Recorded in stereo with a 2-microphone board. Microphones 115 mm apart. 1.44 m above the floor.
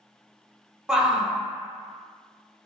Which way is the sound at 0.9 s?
5° right (ahead or behind).